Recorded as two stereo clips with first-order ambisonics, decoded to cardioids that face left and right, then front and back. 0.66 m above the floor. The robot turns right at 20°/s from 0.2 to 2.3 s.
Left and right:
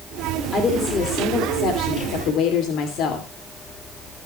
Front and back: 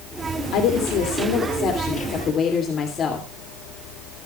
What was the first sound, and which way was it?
A woman speaking, 20° left.